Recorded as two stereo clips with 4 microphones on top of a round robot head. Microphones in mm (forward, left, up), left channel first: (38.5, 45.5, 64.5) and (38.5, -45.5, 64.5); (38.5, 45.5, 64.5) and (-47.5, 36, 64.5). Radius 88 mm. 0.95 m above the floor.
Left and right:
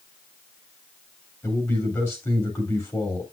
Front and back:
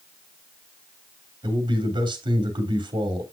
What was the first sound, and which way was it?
A man speaking, 155° left.